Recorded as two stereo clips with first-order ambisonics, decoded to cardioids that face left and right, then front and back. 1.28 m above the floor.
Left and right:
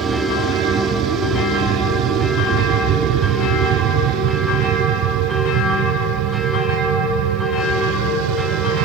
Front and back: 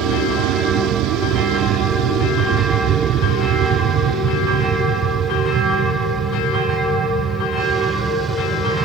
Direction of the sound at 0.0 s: 150° right.